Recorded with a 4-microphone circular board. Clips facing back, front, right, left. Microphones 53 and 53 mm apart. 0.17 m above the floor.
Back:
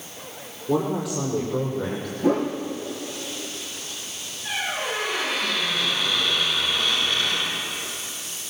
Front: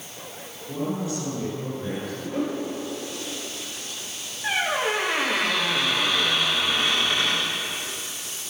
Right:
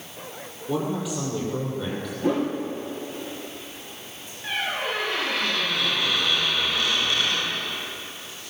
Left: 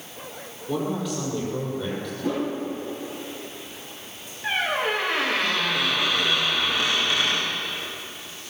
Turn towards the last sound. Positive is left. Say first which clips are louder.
# front 4 dB, left 3 dB
turn(degrees=25)